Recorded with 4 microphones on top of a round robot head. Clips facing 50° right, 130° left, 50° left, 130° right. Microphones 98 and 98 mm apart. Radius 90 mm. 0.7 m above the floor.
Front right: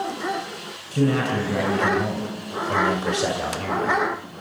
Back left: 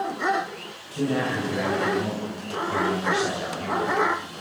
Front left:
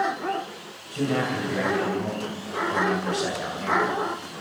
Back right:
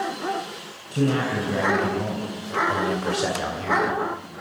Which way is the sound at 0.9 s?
80° right.